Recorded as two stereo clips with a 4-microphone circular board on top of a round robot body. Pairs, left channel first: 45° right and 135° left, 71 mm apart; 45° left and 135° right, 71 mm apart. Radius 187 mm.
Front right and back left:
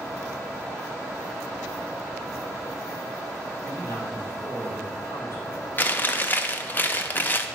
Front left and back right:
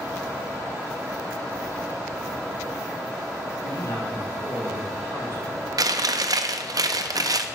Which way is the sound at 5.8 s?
105° right.